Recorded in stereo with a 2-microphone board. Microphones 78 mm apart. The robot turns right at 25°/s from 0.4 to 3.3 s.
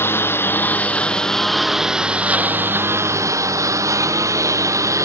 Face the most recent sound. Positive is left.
turn(degrees=-135)